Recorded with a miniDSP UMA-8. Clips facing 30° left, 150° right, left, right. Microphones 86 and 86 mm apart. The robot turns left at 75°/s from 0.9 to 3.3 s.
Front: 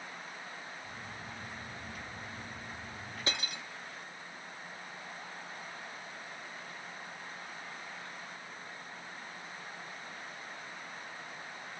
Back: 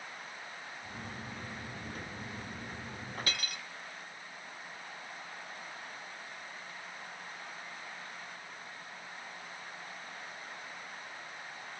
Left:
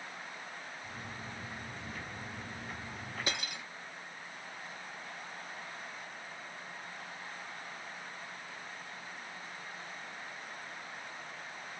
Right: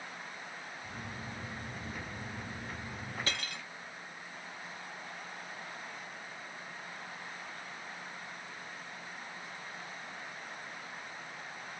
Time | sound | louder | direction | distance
3.3 | cutlery clinking | front 5 dB, left 3 dB | 40° left | 0.7 m